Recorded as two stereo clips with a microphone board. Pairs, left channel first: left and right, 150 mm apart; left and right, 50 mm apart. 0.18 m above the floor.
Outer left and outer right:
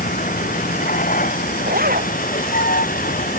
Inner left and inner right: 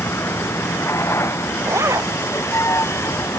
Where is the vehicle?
65° left (ahead or behind); by 3.4 s 70° left (ahead or behind).